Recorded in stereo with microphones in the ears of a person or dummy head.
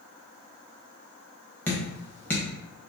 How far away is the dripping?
About 0.8 m.